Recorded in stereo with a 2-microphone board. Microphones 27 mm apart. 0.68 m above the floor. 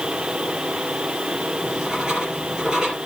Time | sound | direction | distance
1.6 | writing | 30° right (ahead or behind) | 5.5 m